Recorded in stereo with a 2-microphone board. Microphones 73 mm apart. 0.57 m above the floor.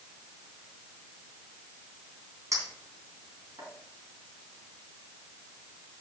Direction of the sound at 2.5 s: 45° right (ahead or behind).